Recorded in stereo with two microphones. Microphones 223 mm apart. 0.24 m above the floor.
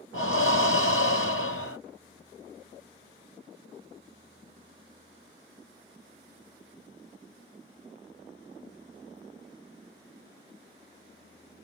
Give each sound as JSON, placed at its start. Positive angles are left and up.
{"t": 0.1, "sound": "breathing", "side_deg": 80, "distance_m": 1.0}